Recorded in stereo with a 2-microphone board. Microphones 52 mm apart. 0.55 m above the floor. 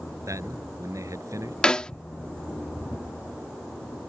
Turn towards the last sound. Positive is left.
turn(degrees=15)  # may be behind; listen again after turning